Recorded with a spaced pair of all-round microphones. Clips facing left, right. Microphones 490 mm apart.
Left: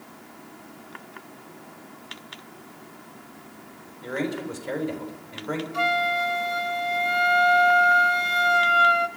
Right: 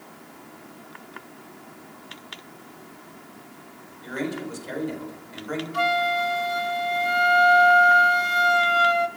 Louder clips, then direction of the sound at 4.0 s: Left 1 dB; 75° left (ahead or behind).